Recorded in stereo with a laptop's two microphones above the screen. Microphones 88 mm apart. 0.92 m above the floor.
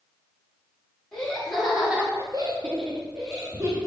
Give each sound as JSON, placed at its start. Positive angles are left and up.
{"t": 1.1, "sound": "laughter", "side_deg": 10, "distance_m": 2.0}